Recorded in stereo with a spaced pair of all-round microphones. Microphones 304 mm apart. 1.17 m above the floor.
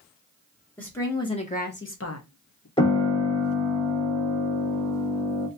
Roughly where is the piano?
Centre.